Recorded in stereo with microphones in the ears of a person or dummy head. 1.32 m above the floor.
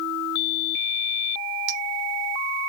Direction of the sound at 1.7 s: 60° right (ahead or behind).